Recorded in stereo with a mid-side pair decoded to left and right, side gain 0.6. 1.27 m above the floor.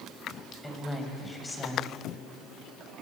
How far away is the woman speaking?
About 6.5 m.